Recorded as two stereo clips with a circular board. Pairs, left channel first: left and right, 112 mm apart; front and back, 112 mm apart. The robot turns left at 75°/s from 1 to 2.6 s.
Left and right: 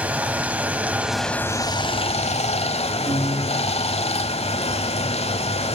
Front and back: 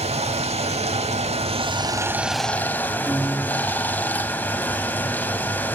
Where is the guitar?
100° right, 4 m.